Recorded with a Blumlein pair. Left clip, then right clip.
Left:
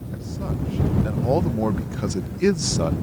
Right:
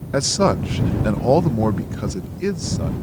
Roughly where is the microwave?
I don't hear a microwave.